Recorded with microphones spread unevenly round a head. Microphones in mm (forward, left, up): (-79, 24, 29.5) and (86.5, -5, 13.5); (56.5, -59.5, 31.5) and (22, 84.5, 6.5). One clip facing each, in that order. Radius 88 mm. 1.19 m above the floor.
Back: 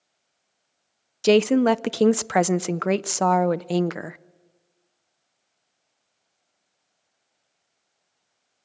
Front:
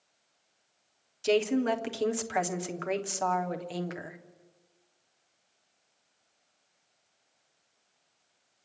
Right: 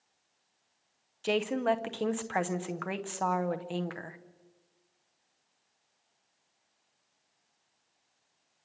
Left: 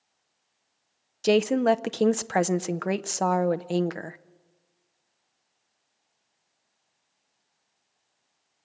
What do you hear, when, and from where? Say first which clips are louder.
1.2 s a woman speaking: back 9 dB, left 8 dB; 150° left, 0.5 m